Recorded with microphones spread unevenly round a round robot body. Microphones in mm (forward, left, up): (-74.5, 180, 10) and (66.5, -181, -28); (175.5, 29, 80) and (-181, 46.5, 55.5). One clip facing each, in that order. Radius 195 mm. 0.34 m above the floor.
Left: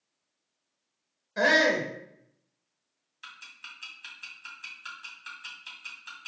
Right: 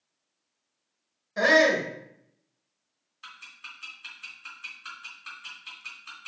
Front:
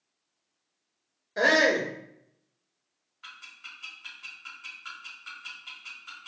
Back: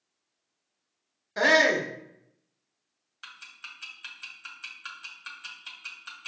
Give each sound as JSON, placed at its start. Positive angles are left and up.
{"t": 1.4, "sound": "a shout", "azimuth_deg": -160, "distance_m": 1.1}
{"t": 3.2, "sound": "ticking", "azimuth_deg": -175, "distance_m": 2.5}